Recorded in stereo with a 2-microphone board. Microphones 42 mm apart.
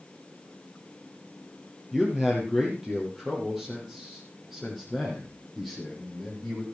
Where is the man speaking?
10° right (ahead or behind), 3.5 m; by 6.6 s 5° right (ahead or behind), 5.5 m.